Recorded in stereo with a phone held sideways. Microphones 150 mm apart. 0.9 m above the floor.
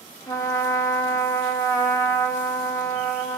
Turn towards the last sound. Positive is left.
turn(degrees=20)  # may be behind; listen again after turning